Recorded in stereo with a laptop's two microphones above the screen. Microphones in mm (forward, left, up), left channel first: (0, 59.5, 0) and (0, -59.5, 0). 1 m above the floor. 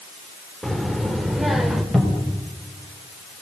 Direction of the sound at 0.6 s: 5° left (ahead or behind).